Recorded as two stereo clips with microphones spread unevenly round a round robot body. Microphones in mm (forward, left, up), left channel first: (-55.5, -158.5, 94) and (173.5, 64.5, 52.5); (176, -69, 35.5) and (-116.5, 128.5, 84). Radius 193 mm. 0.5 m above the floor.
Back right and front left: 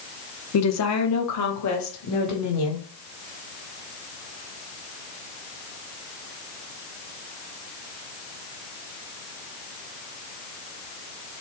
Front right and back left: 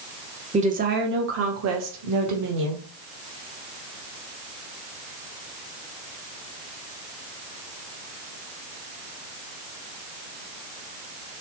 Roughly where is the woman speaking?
Behind right.